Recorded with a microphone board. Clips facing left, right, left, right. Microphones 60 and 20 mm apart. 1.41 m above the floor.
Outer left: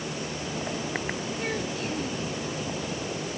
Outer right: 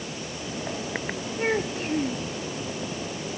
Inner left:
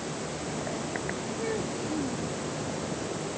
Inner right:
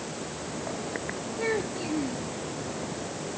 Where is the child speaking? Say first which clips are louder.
Outer right 9 dB, inner right 5 dB; 35° right (ahead or behind).